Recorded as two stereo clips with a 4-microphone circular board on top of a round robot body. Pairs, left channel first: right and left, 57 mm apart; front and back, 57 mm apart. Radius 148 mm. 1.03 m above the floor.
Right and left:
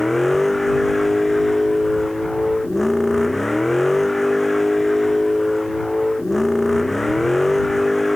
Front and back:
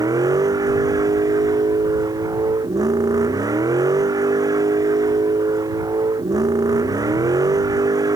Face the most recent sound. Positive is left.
turn(degrees=-175)